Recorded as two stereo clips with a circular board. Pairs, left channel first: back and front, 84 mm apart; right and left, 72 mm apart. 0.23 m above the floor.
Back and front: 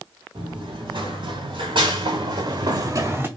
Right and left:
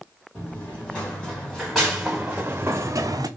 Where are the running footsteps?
15° right, 2.0 m; by 3.3 s 65° left, 0.7 m.